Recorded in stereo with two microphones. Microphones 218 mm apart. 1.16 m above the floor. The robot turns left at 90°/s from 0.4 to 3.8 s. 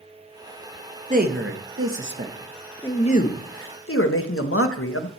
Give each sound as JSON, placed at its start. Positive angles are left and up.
{"t": 1.1, "sound": "a man speaking", "azimuth_deg": -35, "distance_m": 1.4}